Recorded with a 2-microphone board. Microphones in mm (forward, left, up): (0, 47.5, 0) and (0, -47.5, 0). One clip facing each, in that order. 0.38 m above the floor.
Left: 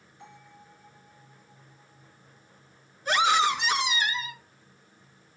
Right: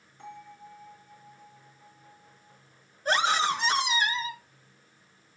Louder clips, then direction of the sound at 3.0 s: Left 2 dB; 45° right (ahead or behind).